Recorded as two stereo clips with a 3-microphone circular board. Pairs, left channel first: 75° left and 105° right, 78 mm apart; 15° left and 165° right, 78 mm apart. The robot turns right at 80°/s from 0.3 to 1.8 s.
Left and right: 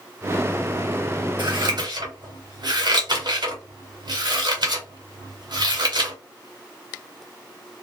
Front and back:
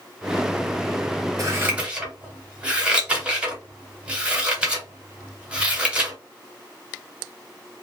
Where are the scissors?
125° right, 1.0 m; by 6.2 s 90° right, 1.0 m.